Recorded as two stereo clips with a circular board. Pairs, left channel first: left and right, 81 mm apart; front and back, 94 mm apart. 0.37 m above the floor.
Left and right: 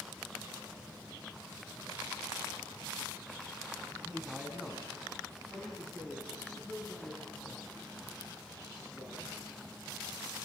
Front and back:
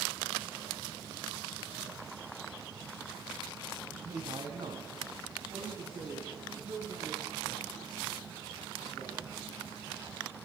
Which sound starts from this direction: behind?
A man speaking, at 3.9 s.